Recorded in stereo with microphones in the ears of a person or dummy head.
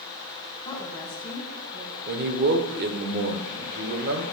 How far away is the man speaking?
About 1.2 m.